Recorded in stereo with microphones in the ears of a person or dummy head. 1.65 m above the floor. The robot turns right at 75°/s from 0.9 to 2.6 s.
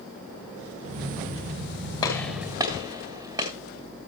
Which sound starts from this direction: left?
A gunshot, at 2.0 s.